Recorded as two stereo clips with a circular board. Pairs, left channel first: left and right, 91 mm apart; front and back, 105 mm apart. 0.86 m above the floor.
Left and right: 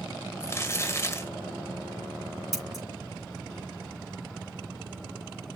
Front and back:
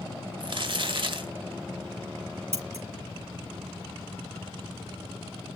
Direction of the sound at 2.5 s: 175° right.